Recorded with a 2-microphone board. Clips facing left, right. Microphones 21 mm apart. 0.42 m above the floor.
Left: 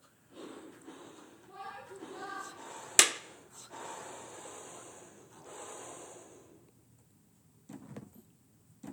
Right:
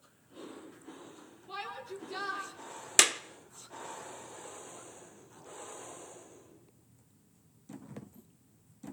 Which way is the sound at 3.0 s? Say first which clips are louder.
Right 1 dB; centre (ahead or behind).